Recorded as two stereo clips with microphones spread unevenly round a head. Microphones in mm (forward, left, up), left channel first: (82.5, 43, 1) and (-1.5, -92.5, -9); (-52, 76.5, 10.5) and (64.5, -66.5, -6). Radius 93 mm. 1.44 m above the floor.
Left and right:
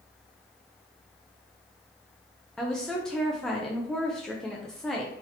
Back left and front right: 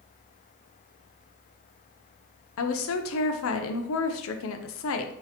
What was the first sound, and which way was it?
A woman speaking, 145° left.